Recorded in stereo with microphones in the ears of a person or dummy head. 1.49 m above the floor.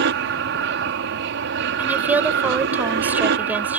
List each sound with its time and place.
0.0 s an aircraft: 60° right (ahead or behind)
1.8 s a woman speaking: 5° right (ahead or behind)